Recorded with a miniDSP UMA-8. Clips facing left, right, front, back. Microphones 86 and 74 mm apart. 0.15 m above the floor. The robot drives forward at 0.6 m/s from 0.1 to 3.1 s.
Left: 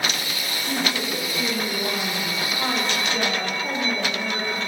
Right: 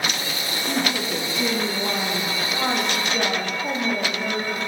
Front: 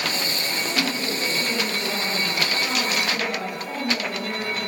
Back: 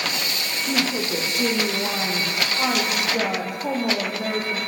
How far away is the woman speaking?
About 6 m.